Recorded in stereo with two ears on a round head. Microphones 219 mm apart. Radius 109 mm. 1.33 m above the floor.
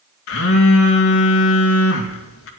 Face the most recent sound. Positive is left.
turn(degrees=60)  # may be behind; listen again after turning